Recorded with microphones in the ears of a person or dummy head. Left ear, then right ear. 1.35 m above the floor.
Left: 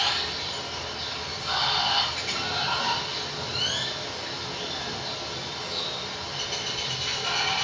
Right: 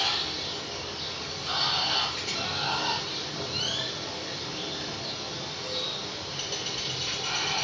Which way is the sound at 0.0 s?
Centre (ahead or behind).